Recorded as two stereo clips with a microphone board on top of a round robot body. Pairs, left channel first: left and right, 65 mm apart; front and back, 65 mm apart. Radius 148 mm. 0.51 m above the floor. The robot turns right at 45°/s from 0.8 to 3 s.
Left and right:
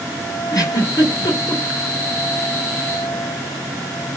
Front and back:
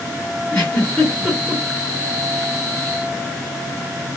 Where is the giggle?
75° left, 1.7 m; by 1.6 s 110° left, 1.7 m.